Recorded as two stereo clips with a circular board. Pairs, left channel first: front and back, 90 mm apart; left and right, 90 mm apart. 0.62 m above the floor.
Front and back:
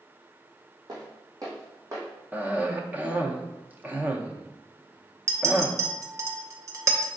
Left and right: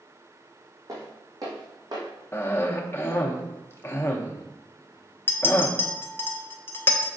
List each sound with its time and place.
0.9 s footsteps: 145° right, 1.9 m; by 2.0 s 125° right, 1.8 m
2.3 s a cough: 125° left, 0.6 m
5.3 s a clink: 145° left, 0.6 m